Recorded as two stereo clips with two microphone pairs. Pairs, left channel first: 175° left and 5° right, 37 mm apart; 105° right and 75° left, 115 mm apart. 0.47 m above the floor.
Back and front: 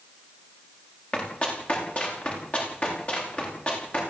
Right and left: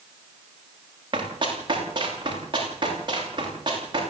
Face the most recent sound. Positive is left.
turn(degrees=120)